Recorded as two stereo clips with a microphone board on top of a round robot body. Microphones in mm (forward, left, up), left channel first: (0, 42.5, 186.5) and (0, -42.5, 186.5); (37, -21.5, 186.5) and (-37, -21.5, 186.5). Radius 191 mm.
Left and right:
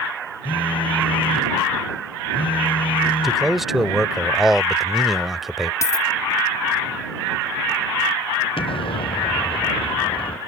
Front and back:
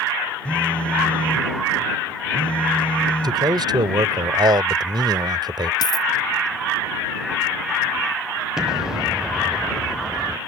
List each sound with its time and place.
0.5 s a phone buzzing: 75° left
3.2 s a man speaking: straight behind
5.8 s a dropped coin: 30° left
8.6 s an explosion: 95° left